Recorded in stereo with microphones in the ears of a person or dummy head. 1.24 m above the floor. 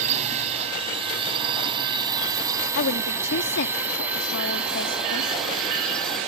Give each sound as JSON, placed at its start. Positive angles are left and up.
{"t": 0.0, "sound": "a drone", "side_deg": -40}
{"t": 2.8, "sound": "a woman speaking", "side_deg": 65}